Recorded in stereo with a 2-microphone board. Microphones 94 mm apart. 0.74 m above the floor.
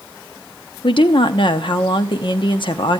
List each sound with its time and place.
0.8 s a woman speaking: 60° left (ahead or behind), 0.7 m